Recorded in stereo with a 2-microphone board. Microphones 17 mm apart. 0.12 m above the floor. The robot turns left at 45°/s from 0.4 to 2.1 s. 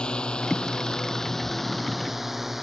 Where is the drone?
60° left (ahead or behind); by 2.6 s 10° right (ahead or behind).